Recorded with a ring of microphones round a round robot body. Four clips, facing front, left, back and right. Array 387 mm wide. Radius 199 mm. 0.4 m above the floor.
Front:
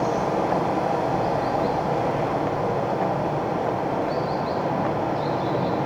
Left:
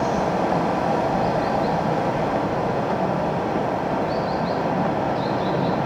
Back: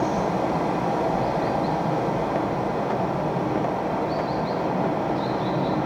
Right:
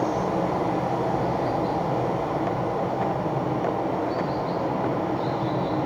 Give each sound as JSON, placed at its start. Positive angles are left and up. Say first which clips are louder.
{"t": 0.0, "sound": "running water", "louder": "left 3 dB, front 1 dB", "azimuth_deg": 90, "distance_m": 2.5}